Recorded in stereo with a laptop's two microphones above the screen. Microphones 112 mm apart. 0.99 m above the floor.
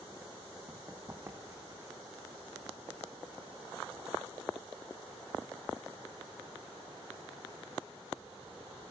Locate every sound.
0.7 s running footsteps: 20° right (ahead or behind), 2.5 m; by 1.9 s 30° right (ahead or behind), 3 m